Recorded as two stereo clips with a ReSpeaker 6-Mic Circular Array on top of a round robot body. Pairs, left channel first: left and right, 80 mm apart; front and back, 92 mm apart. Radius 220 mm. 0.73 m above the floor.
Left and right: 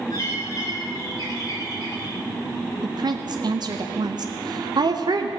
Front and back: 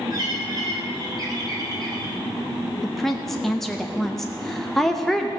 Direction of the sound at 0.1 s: 135° left.